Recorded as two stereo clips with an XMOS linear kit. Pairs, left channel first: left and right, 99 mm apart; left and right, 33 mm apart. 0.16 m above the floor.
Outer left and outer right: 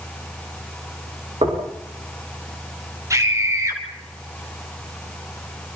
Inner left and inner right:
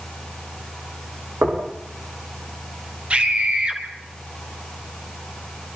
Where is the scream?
35° right (ahead or behind), 4.5 m.